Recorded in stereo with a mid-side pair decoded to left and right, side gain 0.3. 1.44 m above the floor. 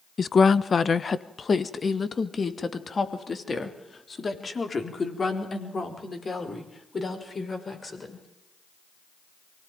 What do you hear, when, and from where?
0.2 s a woman speaking: 50° left, 0.9 m; by 8.2 s 45° left, 6 m